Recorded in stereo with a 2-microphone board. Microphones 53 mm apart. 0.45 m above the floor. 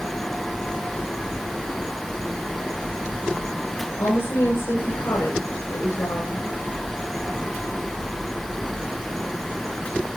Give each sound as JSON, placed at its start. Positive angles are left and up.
{"t": 4.0, "sound": "a woman speaking", "side_deg": 80, "distance_m": 6.0}